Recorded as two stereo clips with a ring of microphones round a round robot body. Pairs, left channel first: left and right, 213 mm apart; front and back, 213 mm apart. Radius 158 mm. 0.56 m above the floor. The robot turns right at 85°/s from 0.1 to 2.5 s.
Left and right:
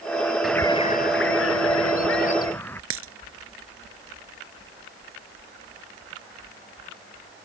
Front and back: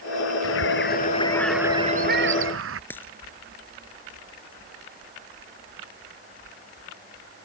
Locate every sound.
0.4 s a bird: straight ahead; by 2.8 s 175° left
2.9 s a dropped coin: 85° right